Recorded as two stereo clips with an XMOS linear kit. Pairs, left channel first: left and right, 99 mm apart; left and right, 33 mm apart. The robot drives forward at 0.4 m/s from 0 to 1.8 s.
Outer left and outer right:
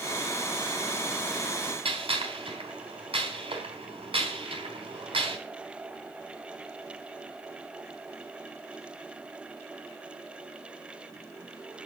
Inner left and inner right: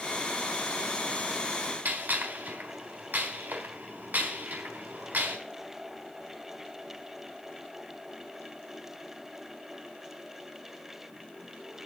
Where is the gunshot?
60° right (ahead or behind), 3.5 m.